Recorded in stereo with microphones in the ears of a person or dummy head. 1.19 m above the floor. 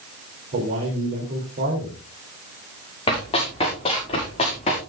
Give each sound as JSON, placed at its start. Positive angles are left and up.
{"t": 0.5, "sound": "a man speaking", "side_deg": -45, "distance_m": 3.5}
{"t": 3.1, "sound": "running footsteps", "side_deg": 25, "distance_m": 7.5}